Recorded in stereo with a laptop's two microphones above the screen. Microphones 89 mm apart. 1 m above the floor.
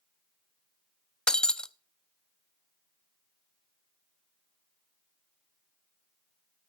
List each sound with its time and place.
1.3 s breaking glass: 10° left (ahead or behind), 0.6 m